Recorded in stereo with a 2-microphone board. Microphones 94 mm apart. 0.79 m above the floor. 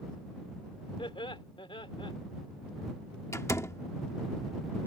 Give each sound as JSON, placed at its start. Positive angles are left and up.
{"t": 1.0, "sound": "laughter", "side_deg": 70}
{"t": 3.3, "sound": "a door slam", "side_deg": 30}